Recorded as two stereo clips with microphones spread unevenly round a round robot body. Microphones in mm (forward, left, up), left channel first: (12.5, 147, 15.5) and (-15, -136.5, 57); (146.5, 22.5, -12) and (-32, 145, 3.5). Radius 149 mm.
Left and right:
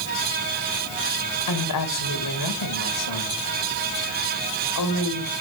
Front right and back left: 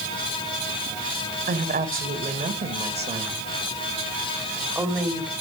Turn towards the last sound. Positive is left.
turn(degrees=60)